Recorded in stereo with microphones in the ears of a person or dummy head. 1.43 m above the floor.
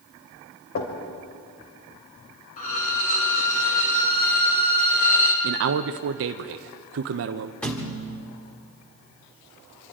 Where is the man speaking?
60° right (ahead or behind), 0.6 m.